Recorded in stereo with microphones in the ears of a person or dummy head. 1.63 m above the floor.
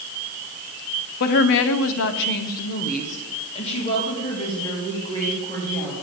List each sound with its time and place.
1.2 s a woman speaking: 50° left (ahead or behind), 0.8 m; by 5.9 s 20° left (ahead or behind), 3 m